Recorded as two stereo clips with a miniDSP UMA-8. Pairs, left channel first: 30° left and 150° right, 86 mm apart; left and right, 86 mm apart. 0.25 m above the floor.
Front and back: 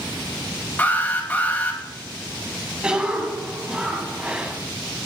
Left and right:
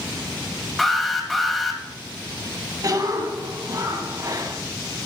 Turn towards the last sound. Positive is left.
turn(degrees=-75)